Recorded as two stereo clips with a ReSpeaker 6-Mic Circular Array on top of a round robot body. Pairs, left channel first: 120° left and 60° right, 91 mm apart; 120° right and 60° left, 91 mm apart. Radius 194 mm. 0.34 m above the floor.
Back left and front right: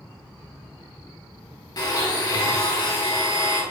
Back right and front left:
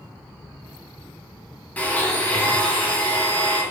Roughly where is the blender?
Behind.